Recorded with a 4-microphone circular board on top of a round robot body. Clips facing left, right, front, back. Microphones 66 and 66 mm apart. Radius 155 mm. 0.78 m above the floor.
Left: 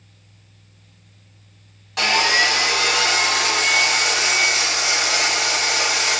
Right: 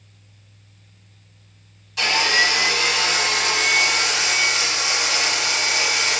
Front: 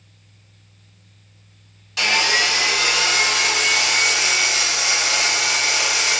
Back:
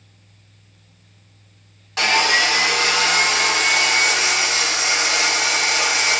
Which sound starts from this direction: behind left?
Sawing, at 2.0 s.